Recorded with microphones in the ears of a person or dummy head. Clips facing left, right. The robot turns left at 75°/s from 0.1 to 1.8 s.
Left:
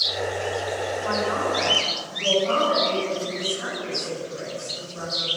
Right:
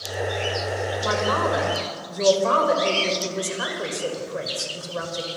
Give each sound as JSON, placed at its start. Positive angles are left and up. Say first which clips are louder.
{"t": 1.0, "sound": "a man speaking", "louder": "right 3 dB", "azimuth_deg": -45, "distance_m": 7.0}